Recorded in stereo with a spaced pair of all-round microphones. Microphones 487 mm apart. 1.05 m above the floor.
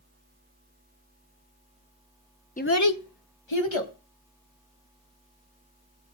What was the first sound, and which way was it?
A child speaking, 15° left (ahead or behind).